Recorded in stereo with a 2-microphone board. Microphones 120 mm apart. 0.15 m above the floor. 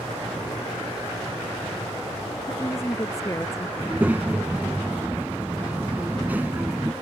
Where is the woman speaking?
25° left (ahead or behind).